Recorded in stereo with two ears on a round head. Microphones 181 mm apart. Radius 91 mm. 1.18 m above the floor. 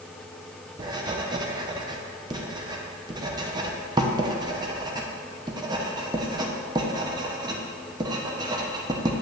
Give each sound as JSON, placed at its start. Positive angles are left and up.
{"t": 0.8, "sound": "writing", "side_deg": -20, "distance_m": 0.8}